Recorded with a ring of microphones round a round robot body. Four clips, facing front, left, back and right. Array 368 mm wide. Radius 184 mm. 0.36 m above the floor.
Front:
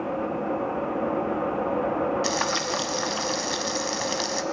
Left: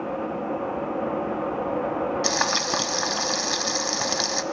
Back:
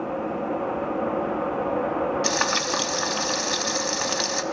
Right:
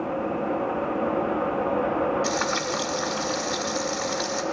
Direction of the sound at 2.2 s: 105° left.